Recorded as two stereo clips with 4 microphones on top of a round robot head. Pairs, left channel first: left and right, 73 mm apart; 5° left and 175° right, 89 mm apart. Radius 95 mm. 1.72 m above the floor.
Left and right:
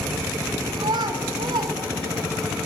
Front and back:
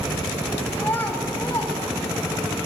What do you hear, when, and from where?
0.8 s a child speaking: 70° right, 2 m